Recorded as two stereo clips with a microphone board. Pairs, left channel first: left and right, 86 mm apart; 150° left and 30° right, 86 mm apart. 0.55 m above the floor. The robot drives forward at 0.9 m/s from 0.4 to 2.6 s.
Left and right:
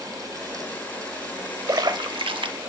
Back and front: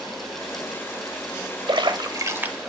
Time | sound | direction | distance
1.7 | a splash | 50° right | 0.9 m